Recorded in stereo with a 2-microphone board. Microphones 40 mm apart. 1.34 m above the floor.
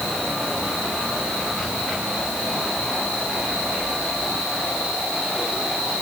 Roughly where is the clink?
I don't hear a clink.